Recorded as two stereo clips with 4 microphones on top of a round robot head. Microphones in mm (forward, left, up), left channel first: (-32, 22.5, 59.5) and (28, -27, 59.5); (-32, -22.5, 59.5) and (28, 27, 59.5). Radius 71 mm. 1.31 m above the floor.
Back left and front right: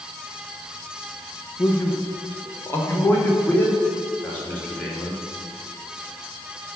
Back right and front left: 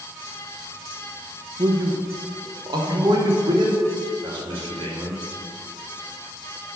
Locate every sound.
1.6 s a man speaking: 85° left, 1.1 m; by 5.2 s 65° left, 3 m